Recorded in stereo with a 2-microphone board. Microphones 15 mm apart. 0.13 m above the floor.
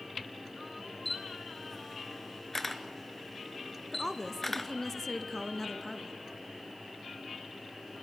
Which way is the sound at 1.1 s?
15° left (ahead or behind).